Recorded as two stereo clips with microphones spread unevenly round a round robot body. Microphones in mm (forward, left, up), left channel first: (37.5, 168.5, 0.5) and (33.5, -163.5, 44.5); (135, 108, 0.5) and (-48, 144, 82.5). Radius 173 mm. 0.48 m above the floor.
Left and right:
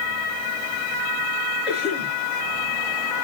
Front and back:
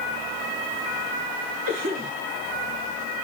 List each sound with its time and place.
1.7 s a cough: 175° right, 7.5 m